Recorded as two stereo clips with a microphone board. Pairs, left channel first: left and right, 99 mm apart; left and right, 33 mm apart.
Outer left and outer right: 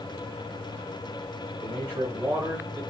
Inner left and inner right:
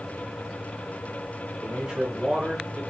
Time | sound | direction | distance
1.6 | a man speaking | 20° right (ahead or behind) | 1.5 m